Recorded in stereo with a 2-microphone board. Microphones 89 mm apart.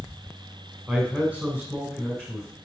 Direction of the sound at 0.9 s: 20° right (ahead or behind).